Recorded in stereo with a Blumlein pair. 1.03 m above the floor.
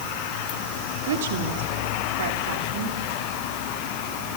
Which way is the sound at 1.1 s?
55° right.